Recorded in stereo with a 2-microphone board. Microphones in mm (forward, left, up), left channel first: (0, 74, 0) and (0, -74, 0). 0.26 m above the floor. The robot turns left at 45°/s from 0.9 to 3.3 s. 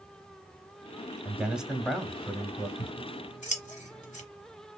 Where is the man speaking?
10° right (ahead or behind), 1.0 m; by 2.7 s 20° left (ahead or behind), 1.0 m.